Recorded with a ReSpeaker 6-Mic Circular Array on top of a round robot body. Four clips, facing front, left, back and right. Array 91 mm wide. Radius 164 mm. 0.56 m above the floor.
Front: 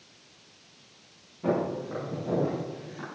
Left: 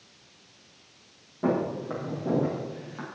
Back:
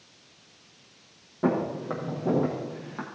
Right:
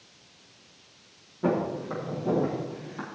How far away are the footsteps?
About 6.5 m.